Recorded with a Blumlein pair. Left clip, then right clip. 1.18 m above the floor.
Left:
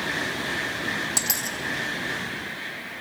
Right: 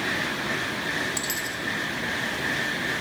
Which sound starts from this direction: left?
A dropped coin, at 1.2 s.